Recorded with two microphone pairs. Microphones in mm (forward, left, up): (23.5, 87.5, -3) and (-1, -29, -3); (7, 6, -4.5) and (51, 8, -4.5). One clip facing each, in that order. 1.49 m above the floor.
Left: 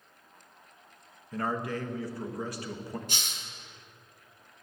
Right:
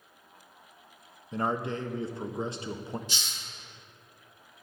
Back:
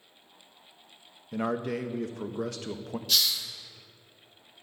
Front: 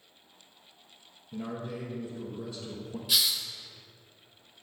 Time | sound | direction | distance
1.3 | a man speaking | 170° right | 0.6 m
3.1 | a hiss | 80° left | 0.7 m